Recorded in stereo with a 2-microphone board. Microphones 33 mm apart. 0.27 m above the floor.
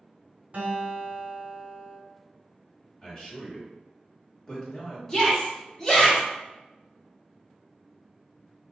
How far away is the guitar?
About 1.8 m.